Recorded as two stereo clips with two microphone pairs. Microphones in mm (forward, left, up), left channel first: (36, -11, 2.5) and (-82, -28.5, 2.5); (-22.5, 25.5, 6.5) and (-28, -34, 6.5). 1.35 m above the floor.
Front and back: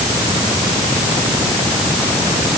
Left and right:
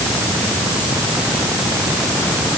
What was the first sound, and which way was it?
Only background noise.